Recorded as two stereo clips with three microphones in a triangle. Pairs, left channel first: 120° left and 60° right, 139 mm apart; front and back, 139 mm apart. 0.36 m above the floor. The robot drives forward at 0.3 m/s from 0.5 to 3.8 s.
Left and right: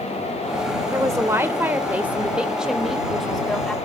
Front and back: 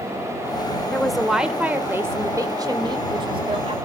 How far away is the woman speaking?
About 0.9 m.